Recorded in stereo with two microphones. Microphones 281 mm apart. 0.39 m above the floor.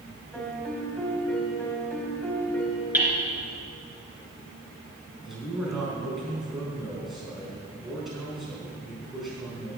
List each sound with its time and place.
0.3 s a piano: 5° left (ahead or behind), 1.8 m
2.9 s hammering: 5° right (ahead or behind), 3 m
5.2 s a man speaking: centre (ahead or behind), 4.5 m